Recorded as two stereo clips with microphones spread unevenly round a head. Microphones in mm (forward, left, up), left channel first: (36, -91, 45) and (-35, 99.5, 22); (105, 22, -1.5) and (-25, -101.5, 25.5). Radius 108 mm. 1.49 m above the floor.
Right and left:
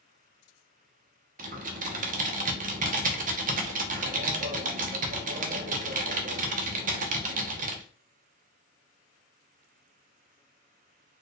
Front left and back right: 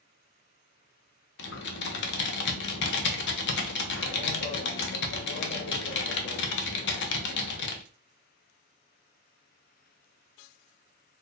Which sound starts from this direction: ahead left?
Typing on a keyboard, at 1.4 s.